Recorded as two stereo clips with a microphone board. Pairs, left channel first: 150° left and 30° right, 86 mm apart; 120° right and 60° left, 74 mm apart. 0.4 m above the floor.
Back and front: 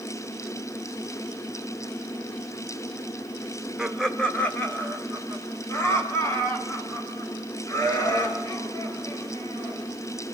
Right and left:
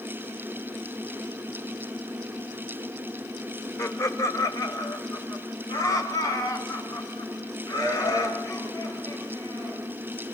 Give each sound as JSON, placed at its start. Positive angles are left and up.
{"t": 3.8, "sound": "laughter", "azimuth_deg": -115, "distance_m": 1.7}